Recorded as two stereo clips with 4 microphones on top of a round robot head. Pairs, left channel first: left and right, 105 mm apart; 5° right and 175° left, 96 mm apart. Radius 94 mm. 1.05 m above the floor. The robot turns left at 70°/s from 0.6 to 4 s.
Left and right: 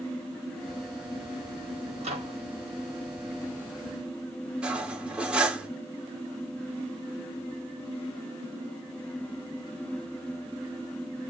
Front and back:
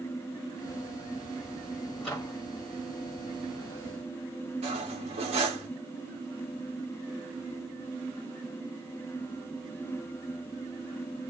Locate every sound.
2.0 s a microwave: 90° right, 1.7 m; by 2.4 s 115° right, 1.7 m
4.6 s cutlery clinking: 170° right, 1.2 m